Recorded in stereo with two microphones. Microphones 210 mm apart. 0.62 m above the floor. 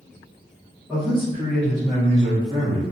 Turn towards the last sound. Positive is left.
turn(degrees=-25)  # may be behind; listen again after turning